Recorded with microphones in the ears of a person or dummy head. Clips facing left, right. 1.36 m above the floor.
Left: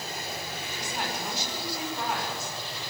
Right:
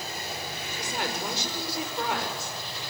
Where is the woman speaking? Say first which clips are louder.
Right 2 dB; 55° right (ahead or behind), 5 m.